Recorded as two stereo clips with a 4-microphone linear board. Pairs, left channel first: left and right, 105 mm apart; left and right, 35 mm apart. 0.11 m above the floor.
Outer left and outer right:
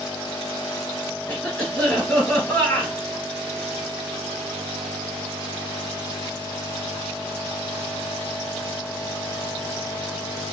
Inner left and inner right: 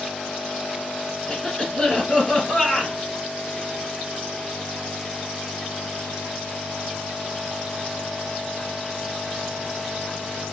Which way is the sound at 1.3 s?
15° left (ahead or behind).